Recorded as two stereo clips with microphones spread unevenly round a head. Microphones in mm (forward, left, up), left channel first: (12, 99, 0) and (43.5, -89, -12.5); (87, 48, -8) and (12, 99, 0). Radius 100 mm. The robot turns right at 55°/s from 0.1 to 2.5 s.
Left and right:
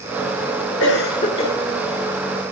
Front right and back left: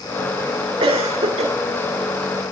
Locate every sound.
0.8 s a cough: 130° left, 2.5 m; by 1.5 s 170° left, 2.5 m